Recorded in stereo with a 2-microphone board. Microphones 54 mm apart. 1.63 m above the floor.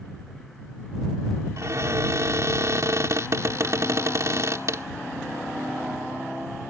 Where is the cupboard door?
60° right (ahead or behind).